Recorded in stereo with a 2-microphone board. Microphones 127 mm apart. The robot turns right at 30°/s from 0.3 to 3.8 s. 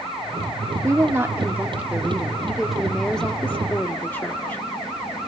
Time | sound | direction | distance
0.8 | a woman speaking | 55° right | 1.0 m